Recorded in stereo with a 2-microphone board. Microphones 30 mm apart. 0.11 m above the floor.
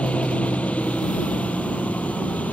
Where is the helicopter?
45° left (ahead or behind); by 2.5 s 55° left (ahead or behind).